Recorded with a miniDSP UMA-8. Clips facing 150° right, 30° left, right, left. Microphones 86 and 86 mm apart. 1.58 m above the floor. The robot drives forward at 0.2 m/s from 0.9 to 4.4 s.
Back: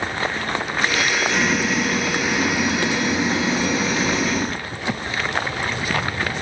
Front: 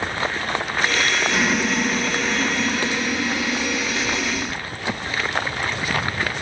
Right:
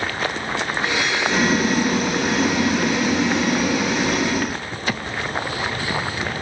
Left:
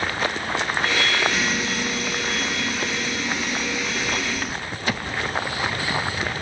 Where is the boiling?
55° right, 0.9 m; by 4.6 s 110° right, 0.8 m.